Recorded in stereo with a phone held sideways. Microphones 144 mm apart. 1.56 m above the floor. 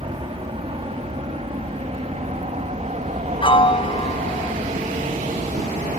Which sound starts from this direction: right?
An aircraft, at 0.0 s.